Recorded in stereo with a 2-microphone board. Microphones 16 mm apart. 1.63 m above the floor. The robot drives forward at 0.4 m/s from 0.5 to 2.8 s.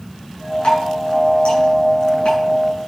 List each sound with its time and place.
0.6 s dripping: 65° left (ahead or behind), 7.5 m; by 2.4 s 70° left (ahead or behind), 7 m